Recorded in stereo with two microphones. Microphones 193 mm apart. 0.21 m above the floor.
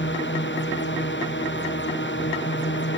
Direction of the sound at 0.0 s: 75° left (ahead or behind).